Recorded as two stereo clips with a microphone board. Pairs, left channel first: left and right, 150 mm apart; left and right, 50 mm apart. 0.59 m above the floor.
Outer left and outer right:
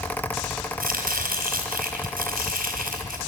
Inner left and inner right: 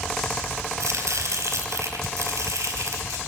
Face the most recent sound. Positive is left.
turn(degrees=-70)  # may be behind; listen again after turning